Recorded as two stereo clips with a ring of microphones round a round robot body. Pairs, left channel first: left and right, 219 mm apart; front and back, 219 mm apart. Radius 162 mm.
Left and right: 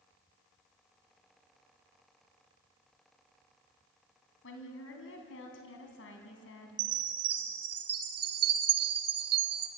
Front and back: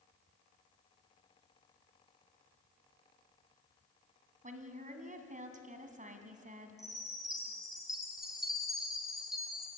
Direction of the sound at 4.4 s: 125° left.